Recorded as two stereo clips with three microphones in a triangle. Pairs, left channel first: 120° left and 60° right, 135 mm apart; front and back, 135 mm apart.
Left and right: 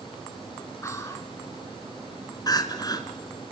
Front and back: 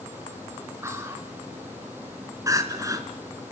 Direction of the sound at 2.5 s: 140° left.